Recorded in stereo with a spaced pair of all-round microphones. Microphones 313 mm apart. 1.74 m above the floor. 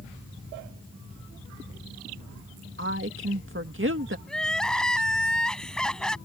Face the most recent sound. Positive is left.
turn(degrees=0)  # may be behind; listen again after turning